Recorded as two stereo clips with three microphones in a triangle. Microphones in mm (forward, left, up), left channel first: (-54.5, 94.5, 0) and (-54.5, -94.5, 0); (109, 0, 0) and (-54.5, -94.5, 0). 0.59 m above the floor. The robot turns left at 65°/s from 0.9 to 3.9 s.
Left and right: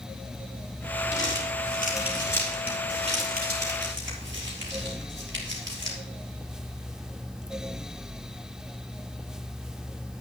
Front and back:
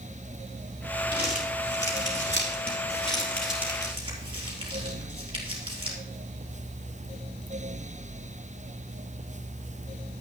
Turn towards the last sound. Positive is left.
turn(degrees=-90)